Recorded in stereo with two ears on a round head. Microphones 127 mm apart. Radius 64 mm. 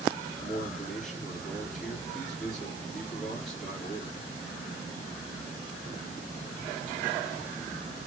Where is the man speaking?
Centre (ahead or behind), 3 m.